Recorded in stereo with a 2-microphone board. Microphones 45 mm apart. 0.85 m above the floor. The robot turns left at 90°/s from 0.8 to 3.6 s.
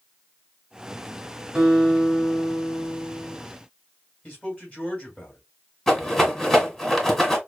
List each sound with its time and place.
1.6 s a guitar: 165° right, 2.5 m; by 3.4 s 30° left, 2.5 m
4.2 s a man speaking: 25° left (ahead or behind), 4 m
5.9 s a rattle: 5° left (ahead or behind), 1.5 m